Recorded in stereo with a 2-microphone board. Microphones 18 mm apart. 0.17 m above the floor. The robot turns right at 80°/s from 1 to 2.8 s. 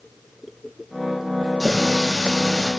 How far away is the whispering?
I don't hear whispering.